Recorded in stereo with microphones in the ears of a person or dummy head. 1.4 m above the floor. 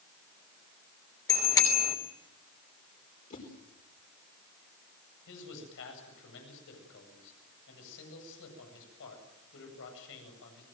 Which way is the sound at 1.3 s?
15° left (ahead or behind).